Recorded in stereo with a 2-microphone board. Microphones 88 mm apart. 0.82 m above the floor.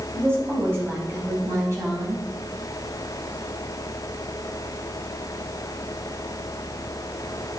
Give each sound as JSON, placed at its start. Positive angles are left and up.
{"t": 0.1, "sound": "a woman speaking", "side_deg": -25, "distance_m": 5.5}